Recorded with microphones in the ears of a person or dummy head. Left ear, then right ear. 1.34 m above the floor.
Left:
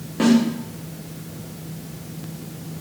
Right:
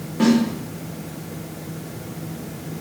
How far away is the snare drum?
About 1.3 m.